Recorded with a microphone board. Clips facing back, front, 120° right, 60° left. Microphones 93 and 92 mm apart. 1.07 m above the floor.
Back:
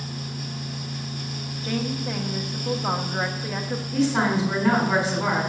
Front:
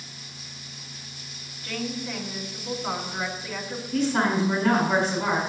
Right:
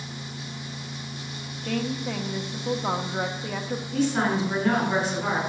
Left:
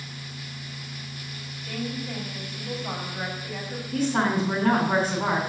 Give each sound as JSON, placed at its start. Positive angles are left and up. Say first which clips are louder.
{"t": 1.6, "sound": "a woman speaking", "louder": "back 4 dB, right 4 dB", "azimuth_deg": -125, "distance_m": 1.5}
{"t": 3.9, "sound": "a woman speaking", "louder": "back 1 dB, even", "azimuth_deg": 105, "distance_m": 4.5}